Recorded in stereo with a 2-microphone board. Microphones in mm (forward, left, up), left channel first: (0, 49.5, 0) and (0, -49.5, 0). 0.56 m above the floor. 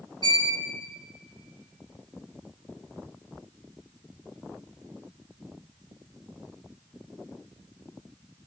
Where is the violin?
50° right (ahead or behind), 3 m.